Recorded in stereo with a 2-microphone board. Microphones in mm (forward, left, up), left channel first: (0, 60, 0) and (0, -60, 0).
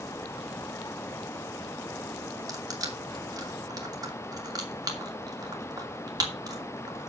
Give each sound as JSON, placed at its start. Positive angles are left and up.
{"t": 2.5, "sound": "crushing", "side_deg": -30, "distance_m": 2.5}